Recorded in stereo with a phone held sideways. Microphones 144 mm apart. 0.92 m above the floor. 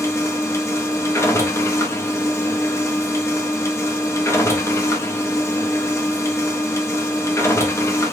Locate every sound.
0.0 s a machine running: 20° left (ahead or behind), 0.7 m